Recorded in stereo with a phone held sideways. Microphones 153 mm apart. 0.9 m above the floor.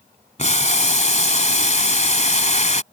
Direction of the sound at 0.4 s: 50° left (ahead or behind).